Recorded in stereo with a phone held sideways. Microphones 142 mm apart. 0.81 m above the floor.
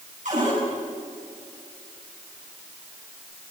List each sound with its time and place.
0.2 s a cupboard door: 65° right (ahead or behind), 9 m